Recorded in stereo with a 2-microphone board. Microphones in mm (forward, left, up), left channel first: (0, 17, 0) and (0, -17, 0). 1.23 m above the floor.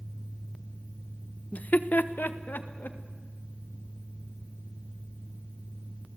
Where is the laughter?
45° left (ahead or behind), 0.8 m; by 3.0 s 70° left (ahead or behind), 2.5 m.